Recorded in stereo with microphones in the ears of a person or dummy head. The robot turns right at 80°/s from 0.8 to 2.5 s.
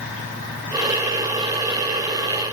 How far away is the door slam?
No door slam in this recording.